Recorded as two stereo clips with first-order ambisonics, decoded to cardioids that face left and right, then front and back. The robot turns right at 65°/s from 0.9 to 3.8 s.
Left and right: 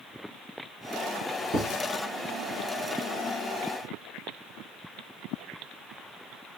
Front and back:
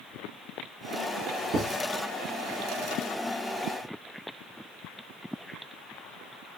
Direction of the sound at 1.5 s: 140° right.